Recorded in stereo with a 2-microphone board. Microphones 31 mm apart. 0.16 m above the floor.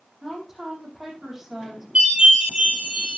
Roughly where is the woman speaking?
Centre.